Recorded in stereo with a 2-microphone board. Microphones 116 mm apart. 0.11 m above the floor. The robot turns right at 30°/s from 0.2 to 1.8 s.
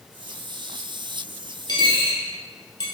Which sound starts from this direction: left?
A dropped coin, at 1.7 s.